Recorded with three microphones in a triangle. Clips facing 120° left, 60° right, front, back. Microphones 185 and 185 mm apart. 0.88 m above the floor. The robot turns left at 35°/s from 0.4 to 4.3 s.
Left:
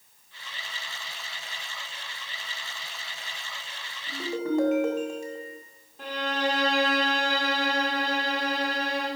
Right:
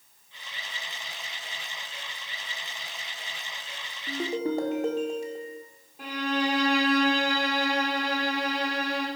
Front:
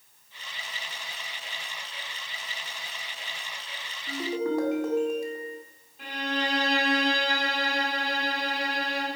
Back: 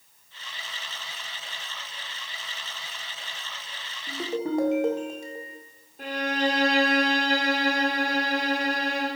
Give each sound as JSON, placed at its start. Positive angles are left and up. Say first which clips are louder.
{"t": 4.1, "sound": "a ringtone", "louder": "even, even", "azimuth_deg": -110, "distance_m": 1.5}
{"t": 6.0, "sound": "a violin", "louder": "right 1 dB, back 5 dB", "azimuth_deg": -135, "distance_m": 2.5}